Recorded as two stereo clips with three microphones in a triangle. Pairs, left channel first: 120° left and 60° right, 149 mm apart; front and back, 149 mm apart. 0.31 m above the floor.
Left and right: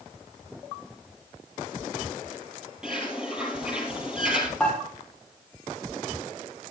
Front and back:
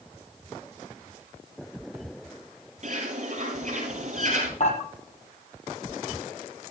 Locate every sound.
2.8 s a bird: 145° right, 3.5 m
4.6 s dishes clattering: 35° left, 6 m